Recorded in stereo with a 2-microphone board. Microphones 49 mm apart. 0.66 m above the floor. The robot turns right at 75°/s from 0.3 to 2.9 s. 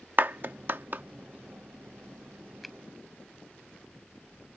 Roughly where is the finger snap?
Centre.